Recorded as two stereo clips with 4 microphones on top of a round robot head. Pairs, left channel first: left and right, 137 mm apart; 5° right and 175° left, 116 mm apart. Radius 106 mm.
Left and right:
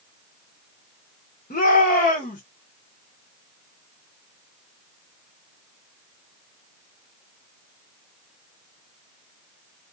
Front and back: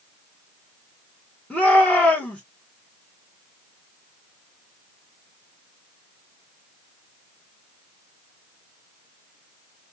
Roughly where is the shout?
Left.